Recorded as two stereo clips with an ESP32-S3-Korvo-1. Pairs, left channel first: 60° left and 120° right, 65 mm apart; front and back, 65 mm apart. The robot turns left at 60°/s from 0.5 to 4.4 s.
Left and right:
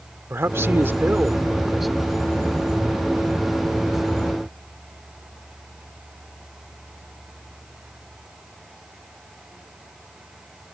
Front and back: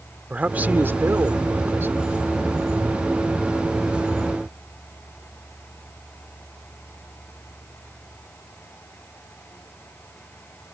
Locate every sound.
0.3 s a man speaking: 130° right; by 2.0 s 140° left